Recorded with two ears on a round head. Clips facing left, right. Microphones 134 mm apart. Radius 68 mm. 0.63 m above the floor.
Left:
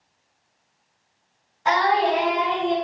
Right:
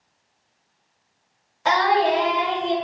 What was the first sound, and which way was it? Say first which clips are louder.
Singing: right 1 dB; 70° right (ahead or behind).